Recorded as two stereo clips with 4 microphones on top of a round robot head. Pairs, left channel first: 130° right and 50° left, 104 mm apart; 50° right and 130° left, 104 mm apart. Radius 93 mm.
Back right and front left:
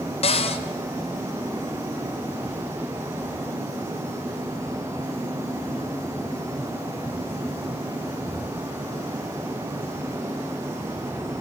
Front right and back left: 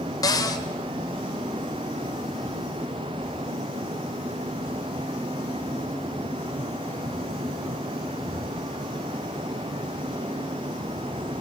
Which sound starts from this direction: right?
A cupboard door, at 0.2 s.